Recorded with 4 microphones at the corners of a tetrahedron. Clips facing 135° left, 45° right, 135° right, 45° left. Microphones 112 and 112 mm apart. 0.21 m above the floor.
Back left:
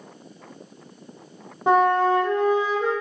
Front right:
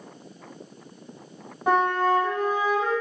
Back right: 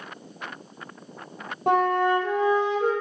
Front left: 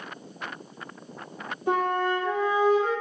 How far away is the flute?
About 1.7 m.